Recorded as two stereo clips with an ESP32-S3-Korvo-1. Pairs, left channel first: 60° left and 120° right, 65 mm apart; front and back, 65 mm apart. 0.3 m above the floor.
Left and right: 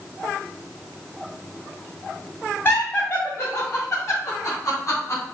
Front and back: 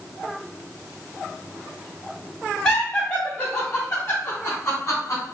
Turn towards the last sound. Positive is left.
turn(degrees=30)